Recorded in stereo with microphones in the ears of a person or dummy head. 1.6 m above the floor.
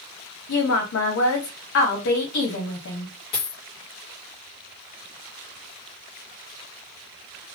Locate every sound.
0.5 s a woman speaking: 65° left (ahead or behind), 1.1 m
3.3 s a dropped coin: 20° left (ahead or behind), 0.9 m